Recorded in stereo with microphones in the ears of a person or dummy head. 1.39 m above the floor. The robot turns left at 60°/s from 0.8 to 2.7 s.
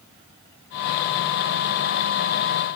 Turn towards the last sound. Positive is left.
No sound to turn to.